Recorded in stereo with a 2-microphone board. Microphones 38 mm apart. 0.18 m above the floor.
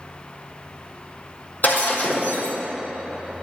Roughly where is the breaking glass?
Left.